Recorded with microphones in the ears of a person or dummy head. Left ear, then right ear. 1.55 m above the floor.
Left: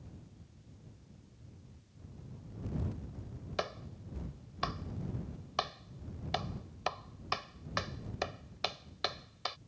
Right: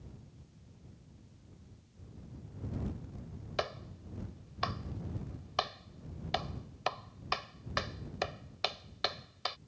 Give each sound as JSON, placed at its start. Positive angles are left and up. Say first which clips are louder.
{"t": 3.6, "sound": "a clap", "louder": "right 1 dB", "side_deg": -10}